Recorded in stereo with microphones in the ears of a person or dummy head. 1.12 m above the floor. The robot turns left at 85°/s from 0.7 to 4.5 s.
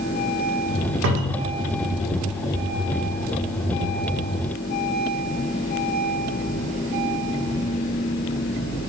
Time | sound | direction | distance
1.0 | a cupboard door | 110° right | 0.6 m